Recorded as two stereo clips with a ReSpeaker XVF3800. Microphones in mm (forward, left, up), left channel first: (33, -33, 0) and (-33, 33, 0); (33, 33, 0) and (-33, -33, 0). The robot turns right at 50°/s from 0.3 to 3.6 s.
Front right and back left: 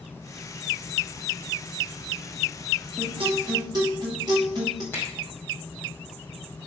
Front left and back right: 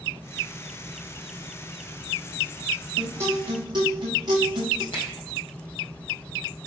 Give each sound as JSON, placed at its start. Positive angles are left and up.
{"t": 3.0, "sound": "a guitar", "azimuth_deg": 150, "distance_m": 5.0}
{"t": 4.9, "sound": "a finger snap", "azimuth_deg": 25, "distance_m": 4.0}